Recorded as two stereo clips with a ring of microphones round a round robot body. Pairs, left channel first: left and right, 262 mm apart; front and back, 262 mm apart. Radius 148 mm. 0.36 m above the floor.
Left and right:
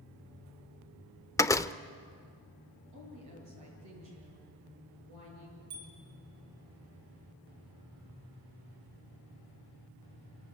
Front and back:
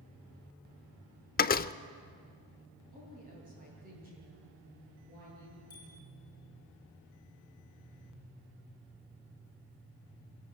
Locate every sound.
1.4 s a door slam: 20° left, 0.7 m
2.9 s a woman speaking: 115° right, 9 m
5.7 s a bicycle bell: 75° right, 8.5 m